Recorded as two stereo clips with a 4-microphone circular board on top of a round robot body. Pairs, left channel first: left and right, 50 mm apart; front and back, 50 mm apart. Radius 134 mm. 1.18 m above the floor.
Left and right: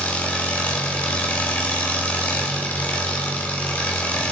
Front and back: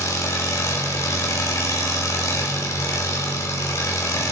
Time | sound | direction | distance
0.0 | an engine running | 30° left | 1.5 m